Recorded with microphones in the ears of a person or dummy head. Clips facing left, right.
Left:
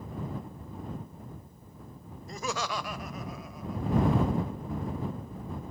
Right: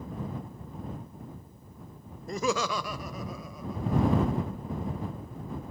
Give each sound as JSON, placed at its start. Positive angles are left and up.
{"t": 2.3, "sound": "laughter", "side_deg": -45}